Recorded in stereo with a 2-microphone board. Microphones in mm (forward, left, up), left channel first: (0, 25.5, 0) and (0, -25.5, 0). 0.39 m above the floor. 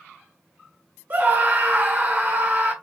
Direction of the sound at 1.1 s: 35° right (ahead or behind).